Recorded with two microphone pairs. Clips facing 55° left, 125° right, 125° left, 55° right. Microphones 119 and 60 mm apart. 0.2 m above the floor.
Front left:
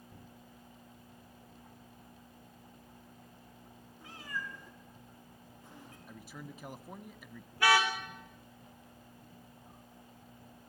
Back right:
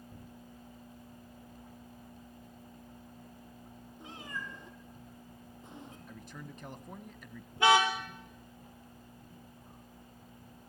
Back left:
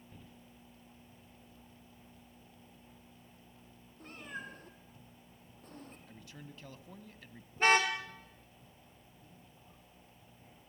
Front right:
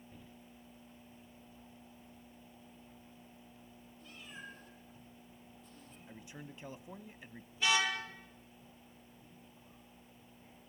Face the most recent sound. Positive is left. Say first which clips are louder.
# back right 3 dB, back left 5 dB
turn(degrees=170)